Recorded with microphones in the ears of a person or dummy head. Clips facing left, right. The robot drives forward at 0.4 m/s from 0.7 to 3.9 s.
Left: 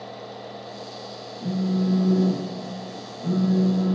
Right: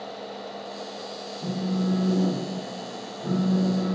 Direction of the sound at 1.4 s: 5° left (ahead or behind).